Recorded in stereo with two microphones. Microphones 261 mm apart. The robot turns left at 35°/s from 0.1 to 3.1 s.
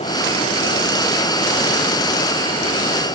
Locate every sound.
Only background noise.